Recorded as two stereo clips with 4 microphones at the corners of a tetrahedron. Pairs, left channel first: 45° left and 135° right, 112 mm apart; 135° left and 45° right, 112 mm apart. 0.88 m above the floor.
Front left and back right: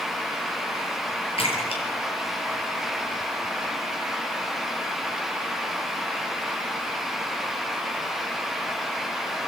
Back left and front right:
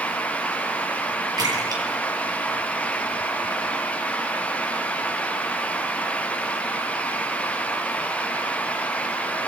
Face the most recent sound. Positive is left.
turn(degrees=10)